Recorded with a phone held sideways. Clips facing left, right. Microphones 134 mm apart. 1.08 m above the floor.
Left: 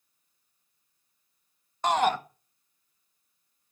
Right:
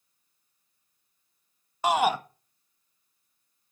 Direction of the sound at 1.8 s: 10° right (ahead or behind).